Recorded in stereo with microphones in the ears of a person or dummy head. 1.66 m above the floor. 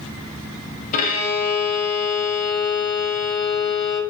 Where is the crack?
No crack in this recording.